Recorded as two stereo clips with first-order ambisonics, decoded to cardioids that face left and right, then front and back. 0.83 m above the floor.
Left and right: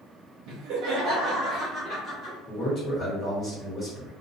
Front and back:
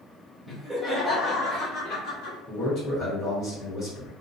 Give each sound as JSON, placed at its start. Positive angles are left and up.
{"t": 0.5, "sound": "laughter", "azimuth_deg": -100, "distance_m": 0.8}
{"t": 2.5, "sound": "a man speaking", "azimuth_deg": 40, "distance_m": 1.3}